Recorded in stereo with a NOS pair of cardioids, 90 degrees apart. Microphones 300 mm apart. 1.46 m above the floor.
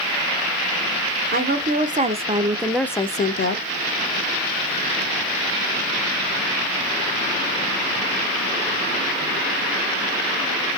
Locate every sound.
1.3 s a woman speaking: 35° right, 1.2 m; by 3.6 s 60° left, 0.5 m